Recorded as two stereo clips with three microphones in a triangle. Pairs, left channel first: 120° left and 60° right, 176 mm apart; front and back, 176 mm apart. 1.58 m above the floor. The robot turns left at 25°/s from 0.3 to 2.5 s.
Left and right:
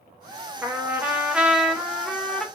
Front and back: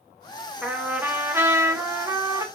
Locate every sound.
0.6 s a trumpet: 115° right, 0.6 m; by 2.5 s 160° right, 0.6 m